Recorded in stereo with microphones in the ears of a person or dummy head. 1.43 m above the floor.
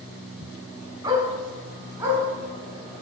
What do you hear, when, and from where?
1.0 s a dog barking: 20° right (ahead or behind), 4.5 m